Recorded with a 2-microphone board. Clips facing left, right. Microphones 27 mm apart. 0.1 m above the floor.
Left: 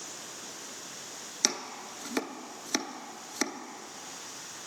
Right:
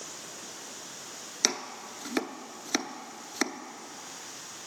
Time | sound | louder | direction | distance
1.4 | chopping | right 1 dB | 15° right (ahead or behind) | 0.6 m